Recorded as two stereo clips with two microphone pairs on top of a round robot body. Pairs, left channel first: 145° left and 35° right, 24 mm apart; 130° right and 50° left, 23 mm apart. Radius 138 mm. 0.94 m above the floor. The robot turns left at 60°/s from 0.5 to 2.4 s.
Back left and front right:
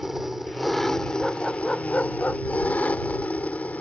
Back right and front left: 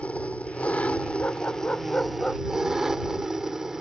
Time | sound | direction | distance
0.0 | an engine running | 120° right | ?
1.2 | a dog barking | 125° right | ?